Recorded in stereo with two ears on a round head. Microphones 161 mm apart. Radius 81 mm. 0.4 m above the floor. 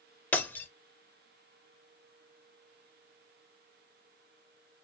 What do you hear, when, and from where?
0.3 s breaking glass: 10° left (ahead or behind), 0.7 m